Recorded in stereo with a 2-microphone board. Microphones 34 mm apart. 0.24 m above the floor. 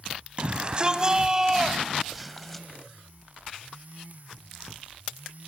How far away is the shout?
About 1.9 m.